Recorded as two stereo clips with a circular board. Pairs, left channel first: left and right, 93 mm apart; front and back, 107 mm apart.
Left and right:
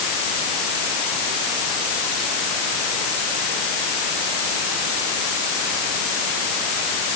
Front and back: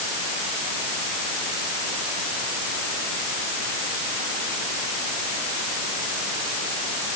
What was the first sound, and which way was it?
Only background noise.